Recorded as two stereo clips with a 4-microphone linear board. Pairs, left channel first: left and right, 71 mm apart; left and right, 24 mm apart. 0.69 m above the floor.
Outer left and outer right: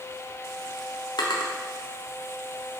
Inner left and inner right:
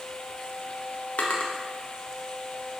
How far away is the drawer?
About 0.5 m.